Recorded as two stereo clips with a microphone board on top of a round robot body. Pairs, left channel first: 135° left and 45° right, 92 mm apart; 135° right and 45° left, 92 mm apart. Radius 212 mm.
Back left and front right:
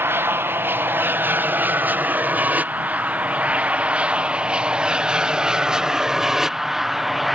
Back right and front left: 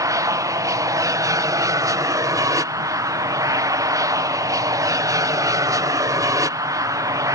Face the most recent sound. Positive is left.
turn(degrees=40)